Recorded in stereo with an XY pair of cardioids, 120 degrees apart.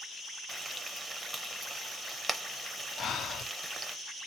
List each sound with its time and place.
0.5 s frying: 15° right, 0.7 m
3.0 s breathing: 50° left, 0.5 m